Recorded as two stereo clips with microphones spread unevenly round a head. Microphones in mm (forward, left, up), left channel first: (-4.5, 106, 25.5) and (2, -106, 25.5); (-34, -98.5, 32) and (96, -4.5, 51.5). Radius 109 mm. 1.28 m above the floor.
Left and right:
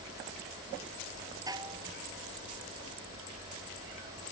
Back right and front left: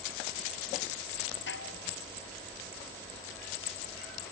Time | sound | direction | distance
1.5 | dishes clattering | 160° right | ?